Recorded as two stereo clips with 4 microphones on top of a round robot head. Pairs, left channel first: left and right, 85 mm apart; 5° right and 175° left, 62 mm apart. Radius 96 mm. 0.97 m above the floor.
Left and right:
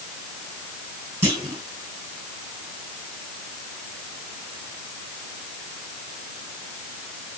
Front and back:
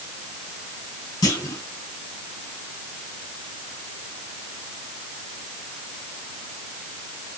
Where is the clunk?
25° right, 4 m.